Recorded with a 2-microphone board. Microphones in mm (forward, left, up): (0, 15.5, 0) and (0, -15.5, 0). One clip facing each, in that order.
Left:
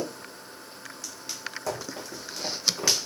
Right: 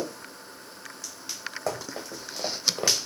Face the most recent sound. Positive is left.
turn(degrees=-40)  # may be behind; listen again after turning